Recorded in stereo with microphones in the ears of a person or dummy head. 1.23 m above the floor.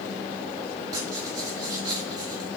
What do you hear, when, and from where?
0.9 s writing: 15° right (ahead or behind), 6 m